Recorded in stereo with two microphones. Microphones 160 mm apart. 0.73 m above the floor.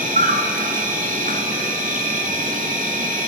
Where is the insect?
60° right (ahead or behind), 1.6 m.